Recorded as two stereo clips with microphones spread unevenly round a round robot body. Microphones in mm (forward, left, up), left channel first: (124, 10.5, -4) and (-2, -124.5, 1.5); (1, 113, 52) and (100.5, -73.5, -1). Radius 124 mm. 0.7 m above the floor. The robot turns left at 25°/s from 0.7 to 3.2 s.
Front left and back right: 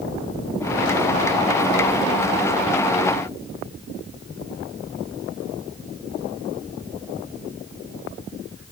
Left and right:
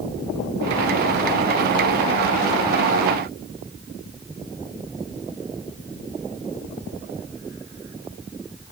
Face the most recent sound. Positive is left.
No sound to turn to.